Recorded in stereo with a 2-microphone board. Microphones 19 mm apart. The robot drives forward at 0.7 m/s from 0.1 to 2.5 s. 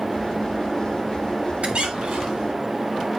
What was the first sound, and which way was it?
A squeak, 70° right (ahead or behind).